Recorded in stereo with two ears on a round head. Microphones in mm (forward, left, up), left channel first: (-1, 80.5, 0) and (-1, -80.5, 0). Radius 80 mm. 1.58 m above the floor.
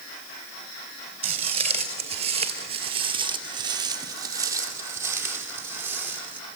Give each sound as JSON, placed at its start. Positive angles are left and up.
{"t": 1.2, "sound": "footsteps", "side_deg": -35, "distance_m": 2.0}